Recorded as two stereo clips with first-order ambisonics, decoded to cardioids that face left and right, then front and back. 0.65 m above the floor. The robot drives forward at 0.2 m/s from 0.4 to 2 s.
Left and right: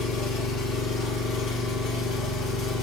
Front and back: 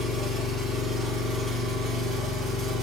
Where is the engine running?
110° left, 1.9 m; by 2.8 s 120° left, 2 m.